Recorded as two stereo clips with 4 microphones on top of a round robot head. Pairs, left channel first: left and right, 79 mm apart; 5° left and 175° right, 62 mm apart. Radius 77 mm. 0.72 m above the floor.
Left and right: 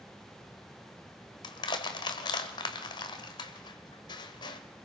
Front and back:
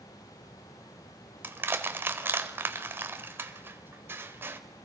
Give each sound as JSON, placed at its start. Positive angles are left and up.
{"t": 1.4, "sound": "crushing", "azimuth_deg": 130, "distance_m": 1.4}